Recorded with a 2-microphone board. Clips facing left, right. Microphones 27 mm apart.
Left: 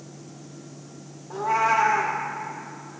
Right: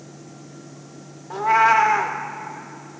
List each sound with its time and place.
1.3 s a cat meowing: 75° right (ahead or behind), 0.7 m